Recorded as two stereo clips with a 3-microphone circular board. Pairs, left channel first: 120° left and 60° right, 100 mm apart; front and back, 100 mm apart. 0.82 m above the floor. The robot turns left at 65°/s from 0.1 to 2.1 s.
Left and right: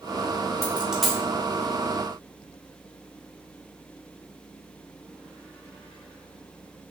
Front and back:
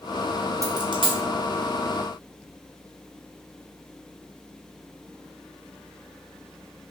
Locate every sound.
0.6 s a dropped coin: 120° right, 0.5 m; by 1.2 s 160° right, 0.5 m